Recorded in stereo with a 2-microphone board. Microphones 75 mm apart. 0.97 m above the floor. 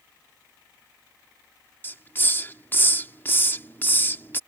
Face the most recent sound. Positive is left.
turn(degrees=25)  # may be behind; listen again after turning